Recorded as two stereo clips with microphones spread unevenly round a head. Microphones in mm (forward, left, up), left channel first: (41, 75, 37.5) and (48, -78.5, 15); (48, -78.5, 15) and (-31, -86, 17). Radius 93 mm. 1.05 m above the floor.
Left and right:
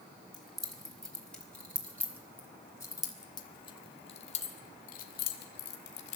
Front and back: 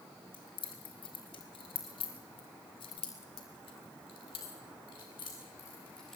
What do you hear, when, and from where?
0.3 s keys jangling: 5° left, 4.5 m; by 6.2 s 95° left, 2 m